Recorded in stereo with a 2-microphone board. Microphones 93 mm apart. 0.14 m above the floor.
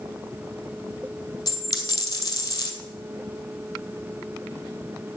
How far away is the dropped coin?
About 2 m.